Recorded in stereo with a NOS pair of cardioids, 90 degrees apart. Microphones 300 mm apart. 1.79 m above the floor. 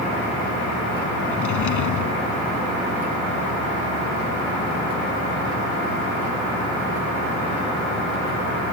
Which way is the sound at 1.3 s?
70° left.